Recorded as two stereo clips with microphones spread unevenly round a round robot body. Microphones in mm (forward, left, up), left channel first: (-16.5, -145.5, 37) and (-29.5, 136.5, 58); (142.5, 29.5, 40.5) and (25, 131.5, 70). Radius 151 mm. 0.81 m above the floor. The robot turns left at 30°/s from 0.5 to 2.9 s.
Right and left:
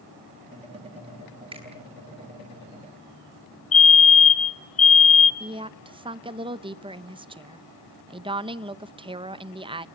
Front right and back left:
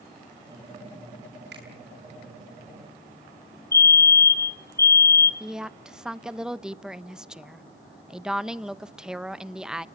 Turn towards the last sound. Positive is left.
turn(degrees=35)